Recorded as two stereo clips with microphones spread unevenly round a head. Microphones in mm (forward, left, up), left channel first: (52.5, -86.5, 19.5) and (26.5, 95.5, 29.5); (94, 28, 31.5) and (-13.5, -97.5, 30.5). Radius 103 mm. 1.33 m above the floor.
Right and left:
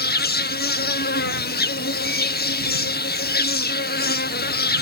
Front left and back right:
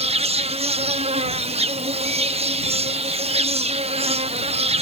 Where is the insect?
85° right.